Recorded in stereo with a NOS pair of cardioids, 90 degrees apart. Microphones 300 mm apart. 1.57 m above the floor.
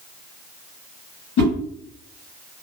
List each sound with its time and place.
1.4 s a whoosh: 65° left, 1.8 m